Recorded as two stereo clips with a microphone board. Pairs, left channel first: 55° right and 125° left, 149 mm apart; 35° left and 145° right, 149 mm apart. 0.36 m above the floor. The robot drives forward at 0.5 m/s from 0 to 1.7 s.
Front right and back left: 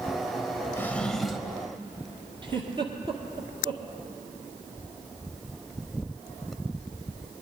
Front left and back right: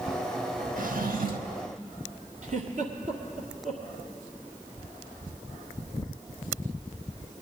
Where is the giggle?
Straight behind, 1.8 m.